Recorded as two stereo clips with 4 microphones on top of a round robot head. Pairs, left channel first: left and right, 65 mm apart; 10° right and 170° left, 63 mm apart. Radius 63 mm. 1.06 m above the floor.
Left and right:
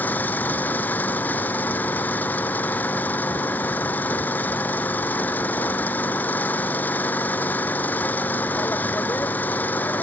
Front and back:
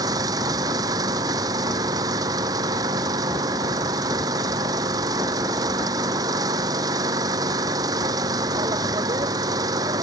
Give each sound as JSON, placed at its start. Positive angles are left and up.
{"t": 0.0, "sound": "an engine running", "azimuth_deg": 155}